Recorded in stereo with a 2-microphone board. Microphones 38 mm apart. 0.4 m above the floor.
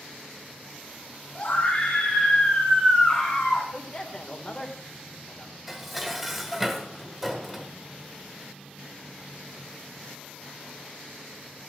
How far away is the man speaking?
About 1.6 m.